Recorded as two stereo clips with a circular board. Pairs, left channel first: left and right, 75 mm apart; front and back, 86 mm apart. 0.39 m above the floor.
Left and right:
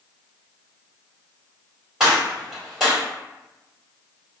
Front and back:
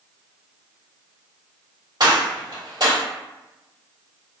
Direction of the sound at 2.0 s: 170° right.